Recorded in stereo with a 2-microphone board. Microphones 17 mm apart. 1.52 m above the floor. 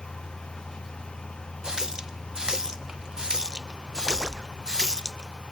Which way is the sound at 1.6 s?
45° right (ahead or behind).